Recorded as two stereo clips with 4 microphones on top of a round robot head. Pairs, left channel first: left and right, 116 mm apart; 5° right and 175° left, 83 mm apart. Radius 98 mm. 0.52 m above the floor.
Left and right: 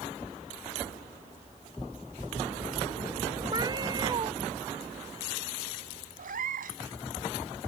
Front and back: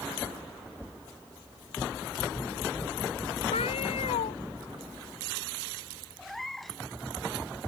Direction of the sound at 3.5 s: 25° right.